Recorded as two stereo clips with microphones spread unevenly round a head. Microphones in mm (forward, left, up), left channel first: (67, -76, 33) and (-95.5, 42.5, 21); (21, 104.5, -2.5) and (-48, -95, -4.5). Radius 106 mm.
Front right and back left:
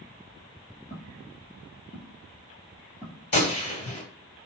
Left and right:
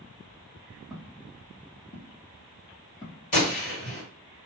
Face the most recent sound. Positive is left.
turn(degrees=20)